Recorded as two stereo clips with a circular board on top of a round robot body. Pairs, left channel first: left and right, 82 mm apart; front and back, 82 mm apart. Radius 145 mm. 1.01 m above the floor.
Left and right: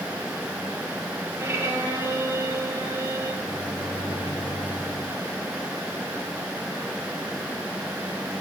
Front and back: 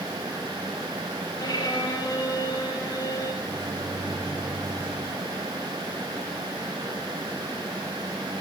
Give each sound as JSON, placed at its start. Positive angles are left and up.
{"t": 1.4, "sound": "a violin", "azimuth_deg": -25, "distance_m": 5.5}
{"t": 3.4, "sound": "a microwave", "azimuth_deg": 120, "distance_m": 2.5}